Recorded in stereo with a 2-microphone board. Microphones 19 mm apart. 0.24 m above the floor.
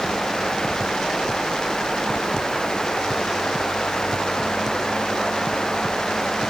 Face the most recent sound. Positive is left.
No sound to turn to.